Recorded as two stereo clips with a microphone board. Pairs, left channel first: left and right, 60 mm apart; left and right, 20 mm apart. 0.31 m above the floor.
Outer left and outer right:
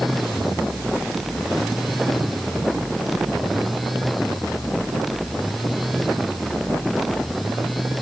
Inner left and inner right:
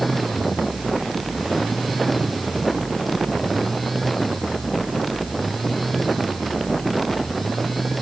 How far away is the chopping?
I don't hear chopping.